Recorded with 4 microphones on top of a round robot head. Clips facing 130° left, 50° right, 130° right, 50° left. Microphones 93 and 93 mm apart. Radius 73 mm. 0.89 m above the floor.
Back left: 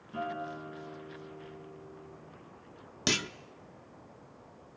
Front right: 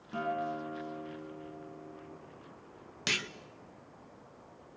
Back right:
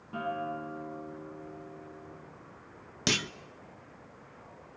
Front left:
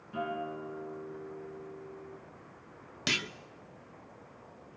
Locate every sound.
0.1 s a guitar: 80° right, 10 m
3.1 s a clunk: straight behind, 0.8 m